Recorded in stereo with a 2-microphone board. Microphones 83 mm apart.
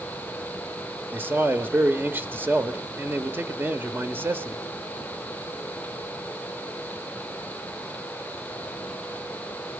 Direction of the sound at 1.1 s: 25° right (ahead or behind).